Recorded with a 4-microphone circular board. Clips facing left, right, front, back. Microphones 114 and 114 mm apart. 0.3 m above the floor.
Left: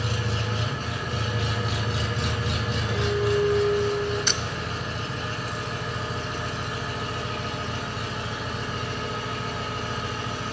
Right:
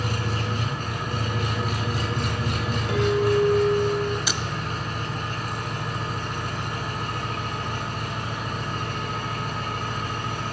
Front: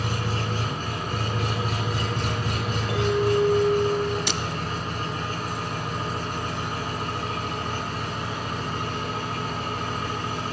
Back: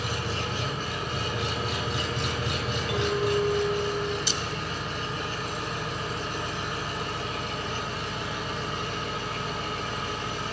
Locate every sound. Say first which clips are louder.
0.0 s an engine running: right 1 dB, front 3 dB; 45° right, 2.5 m
2.9 s a clink: right 3 dB, front 4 dB; 55° right, 4 m
4.3 s breaking glass: right 1 dB, front 4 dB; 10° right, 0.6 m